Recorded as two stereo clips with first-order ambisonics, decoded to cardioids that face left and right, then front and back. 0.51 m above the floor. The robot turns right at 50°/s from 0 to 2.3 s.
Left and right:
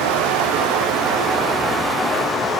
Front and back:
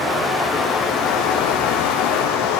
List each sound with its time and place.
0.0 s running water: 100° right, 5 m; by 2.6 s 15° left, 5 m